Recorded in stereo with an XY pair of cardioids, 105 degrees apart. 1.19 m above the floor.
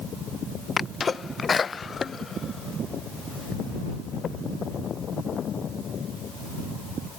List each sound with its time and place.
0.8 s a sneeze: 35° left